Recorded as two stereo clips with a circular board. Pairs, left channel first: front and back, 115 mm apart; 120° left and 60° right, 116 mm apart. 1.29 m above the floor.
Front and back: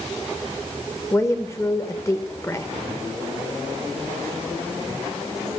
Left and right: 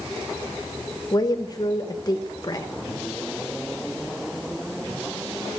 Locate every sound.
1.1 s a woman speaking: 65° left, 0.9 m